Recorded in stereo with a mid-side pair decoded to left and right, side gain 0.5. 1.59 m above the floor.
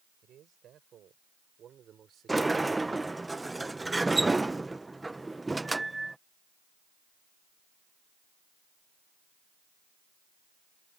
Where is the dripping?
No dripping in this recording.